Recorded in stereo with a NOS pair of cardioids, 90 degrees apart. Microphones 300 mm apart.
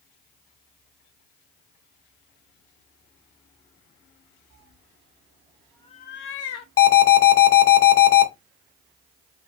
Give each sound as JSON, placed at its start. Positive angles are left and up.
{"t": 4.5, "sound": "a cat meowing", "azimuth_deg": -50, "distance_m": 1.1}
{"t": 6.8, "sound": "an alarm", "azimuth_deg": 55, "distance_m": 1.1}